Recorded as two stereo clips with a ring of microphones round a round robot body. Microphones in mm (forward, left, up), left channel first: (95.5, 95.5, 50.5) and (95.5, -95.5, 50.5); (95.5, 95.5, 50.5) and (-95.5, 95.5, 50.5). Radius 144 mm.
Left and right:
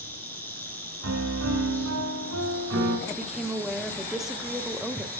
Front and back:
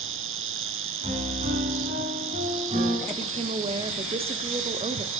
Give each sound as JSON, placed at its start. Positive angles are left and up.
{"t": 0.0, "sound": "an insect", "azimuth_deg": 175, "distance_m": 1.8}
{"t": 1.0, "sound": "a piano", "azimuth_deg": -110, "distance_m": 2.0}
{"t": 3.1, "sound": "a woman speaking", "azimuth_deg": -175, "distance_m": 0.9}